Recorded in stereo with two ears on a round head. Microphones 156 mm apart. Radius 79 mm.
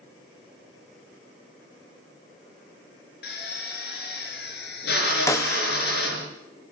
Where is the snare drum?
15° left (ahead or behind), 0.6 m.